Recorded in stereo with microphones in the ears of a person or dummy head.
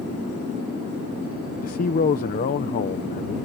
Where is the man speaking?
40° left (ahead or behind).